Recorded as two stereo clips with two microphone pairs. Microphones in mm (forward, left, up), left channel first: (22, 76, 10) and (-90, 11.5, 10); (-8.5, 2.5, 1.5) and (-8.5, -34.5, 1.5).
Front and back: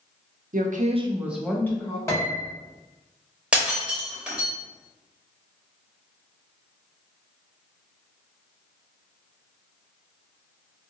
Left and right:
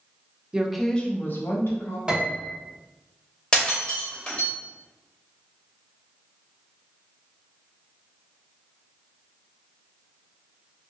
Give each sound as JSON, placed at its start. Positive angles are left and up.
{"t": 0.5, "sound": "a woman speaking", "azimuth_deg": -160, "distance_m": 0.6}
{"t": 2.1, "sound": "a piano", "azimuth_deg": -30, "distance_m": 0.9}
{"t": 3.5, "sound": "breaking glass", "azimuth_deg": 135, "distance_m": 0.9}